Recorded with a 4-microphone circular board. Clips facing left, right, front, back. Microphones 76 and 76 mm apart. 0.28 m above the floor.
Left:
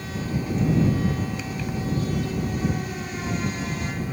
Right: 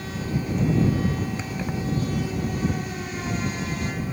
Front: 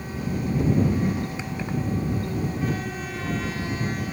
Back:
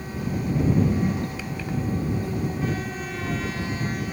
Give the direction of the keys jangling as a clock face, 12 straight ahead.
2 o'clock.